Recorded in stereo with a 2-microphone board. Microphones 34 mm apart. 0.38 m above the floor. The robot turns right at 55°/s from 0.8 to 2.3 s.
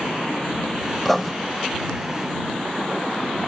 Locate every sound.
1.1 s writing: 10° left (ahead or behind); by 1.3 s 5° right (ahead or behind)